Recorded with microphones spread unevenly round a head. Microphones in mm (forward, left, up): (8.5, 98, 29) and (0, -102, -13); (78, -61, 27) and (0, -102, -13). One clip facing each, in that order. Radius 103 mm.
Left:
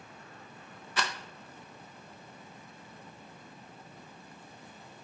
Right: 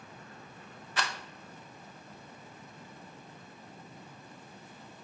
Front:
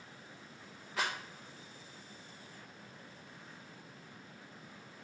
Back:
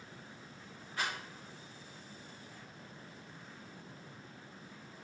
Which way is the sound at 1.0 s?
90° left.